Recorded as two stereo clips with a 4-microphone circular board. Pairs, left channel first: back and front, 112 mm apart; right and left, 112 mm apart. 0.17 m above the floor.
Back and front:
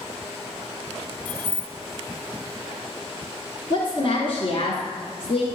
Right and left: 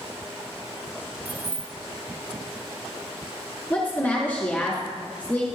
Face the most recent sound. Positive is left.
turn(degrees=-160)